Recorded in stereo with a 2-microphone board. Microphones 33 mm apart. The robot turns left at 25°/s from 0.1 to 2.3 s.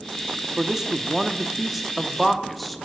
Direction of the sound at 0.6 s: 15° right (ahead or behind).